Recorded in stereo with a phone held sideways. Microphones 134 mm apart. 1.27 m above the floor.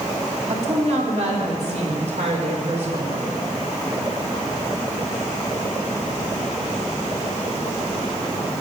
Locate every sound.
0.5 s a woman speaking: 60° right (ahead or behind), 3 m